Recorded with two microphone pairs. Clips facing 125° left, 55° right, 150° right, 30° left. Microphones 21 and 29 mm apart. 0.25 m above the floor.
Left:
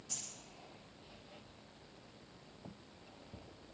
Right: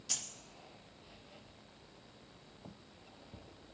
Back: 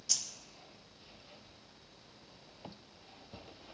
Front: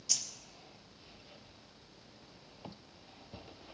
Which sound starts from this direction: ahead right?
Keys jangling, at 0.1 s.